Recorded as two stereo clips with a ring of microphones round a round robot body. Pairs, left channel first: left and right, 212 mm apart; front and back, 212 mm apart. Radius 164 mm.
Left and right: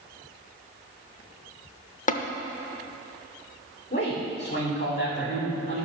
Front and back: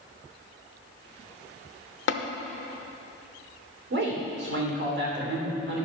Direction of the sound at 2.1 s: 35° left.